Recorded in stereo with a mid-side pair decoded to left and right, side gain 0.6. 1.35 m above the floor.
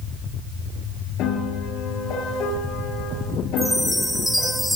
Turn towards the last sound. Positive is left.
turn(degrees=5)